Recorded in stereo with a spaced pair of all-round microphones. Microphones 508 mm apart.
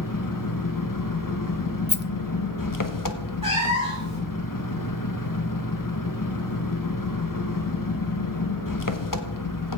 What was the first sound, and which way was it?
An engine running, 40° left (ahead or behind).